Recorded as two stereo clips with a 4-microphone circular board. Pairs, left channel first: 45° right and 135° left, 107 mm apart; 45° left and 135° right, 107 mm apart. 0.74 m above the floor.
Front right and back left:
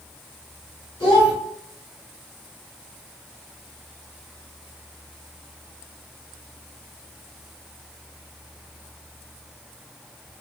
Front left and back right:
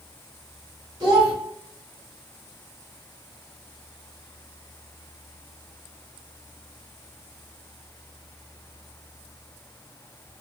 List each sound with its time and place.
1.0 s a child speaking: 85° right, 1.7 m